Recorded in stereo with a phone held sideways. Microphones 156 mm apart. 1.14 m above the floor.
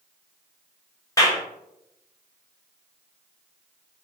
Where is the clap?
20° left (ahead or behind), 0.6 m.